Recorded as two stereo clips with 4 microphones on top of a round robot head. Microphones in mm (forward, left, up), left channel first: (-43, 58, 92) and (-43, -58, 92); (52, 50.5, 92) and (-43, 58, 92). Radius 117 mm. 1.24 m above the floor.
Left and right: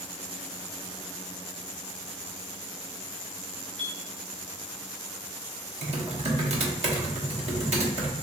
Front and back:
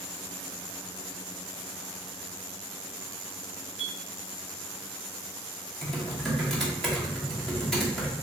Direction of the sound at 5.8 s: 90° right.